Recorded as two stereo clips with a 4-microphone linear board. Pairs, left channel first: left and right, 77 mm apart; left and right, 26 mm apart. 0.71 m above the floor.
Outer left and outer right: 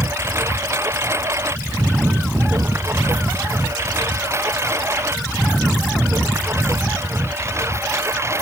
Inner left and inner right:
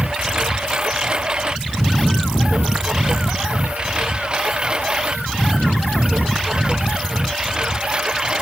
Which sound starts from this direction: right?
A lawn mower, at 0.0 s.